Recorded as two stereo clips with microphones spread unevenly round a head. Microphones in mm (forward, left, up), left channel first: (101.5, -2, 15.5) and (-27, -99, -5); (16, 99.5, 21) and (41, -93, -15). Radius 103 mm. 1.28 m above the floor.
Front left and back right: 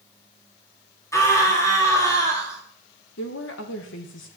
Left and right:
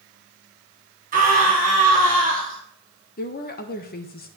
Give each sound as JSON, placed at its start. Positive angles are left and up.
{"t": 1.1, "sound": "a scream", "azimuth_deg": -35, "distance_m": 3.0}
{"t": 3.2, "sound": "a woman speaking", "azimuth_deg": 50, "distance_m": 1.4}